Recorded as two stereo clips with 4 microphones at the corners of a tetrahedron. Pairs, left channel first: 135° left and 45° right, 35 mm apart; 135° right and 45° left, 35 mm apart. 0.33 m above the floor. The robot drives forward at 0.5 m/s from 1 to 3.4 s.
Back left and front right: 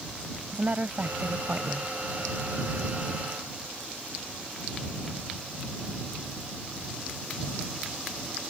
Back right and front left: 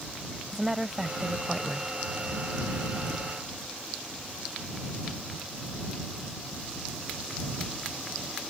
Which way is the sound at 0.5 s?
30° right.